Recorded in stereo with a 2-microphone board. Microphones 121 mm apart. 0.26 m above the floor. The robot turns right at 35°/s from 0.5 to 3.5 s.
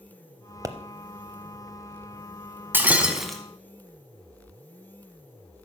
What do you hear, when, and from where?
0.6 s a pop: 25° right (ahead or behind), 0.6 m; by 0.8 s 30° right (ahead or behind), 0.6 m
2.7 s breaking glass: 15° right (ahead or behind), 1.1 m; by 3.4 s 5° left (ahead or behind), 1.1 m